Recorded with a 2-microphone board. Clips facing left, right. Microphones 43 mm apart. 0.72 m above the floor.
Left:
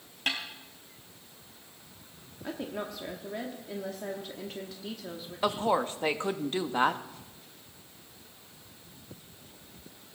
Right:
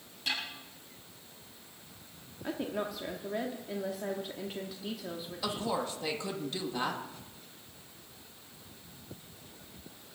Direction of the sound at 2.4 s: 10° right (ahead or behind).